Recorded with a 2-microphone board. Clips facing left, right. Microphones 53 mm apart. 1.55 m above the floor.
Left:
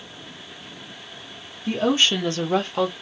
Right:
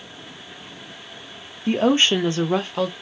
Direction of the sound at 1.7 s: 45° right (ahead or behind).